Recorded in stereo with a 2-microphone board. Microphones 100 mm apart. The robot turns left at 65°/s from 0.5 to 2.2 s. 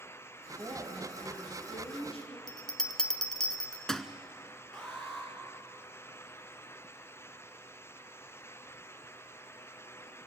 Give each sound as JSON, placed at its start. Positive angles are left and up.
{"t": 0.5, "sound": "a woman speaking", "azimuth_deg": -145, "distance_m": 6.0}
{"t": 2.5, "sound": "a bell", "side_deg": 5, "distance_m": 0.8}
{"t": 4.7, "sound": "an alarm", "side_deg": 5, "distance_m": 4.5}